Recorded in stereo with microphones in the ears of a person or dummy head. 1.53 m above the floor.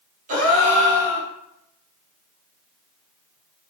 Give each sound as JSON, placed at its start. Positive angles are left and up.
{"t": 0.3, "sound": "a gasp", "side_deg": -45, "distance_m": 0.9}